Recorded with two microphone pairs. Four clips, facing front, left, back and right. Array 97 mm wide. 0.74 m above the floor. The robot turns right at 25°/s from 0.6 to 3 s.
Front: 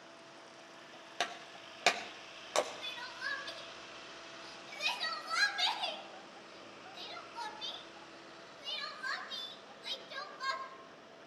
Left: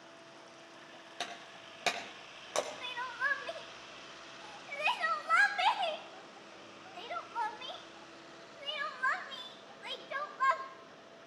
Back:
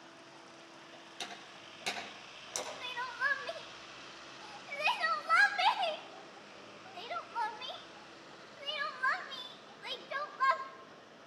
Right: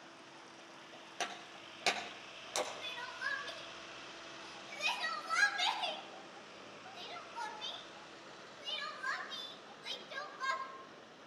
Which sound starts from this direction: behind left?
Crying, at 2.8 s.